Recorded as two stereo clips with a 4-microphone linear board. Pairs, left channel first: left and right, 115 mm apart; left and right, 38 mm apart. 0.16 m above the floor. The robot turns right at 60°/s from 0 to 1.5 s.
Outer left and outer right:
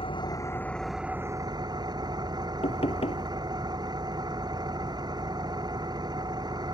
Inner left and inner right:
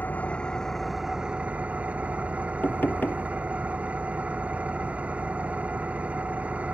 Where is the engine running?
125° left; by 6.7 s 145° right.